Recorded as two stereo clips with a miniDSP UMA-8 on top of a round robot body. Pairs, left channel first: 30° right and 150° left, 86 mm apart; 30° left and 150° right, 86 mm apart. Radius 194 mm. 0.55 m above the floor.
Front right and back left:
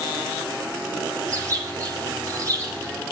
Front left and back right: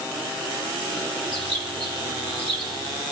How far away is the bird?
About 4.5 m.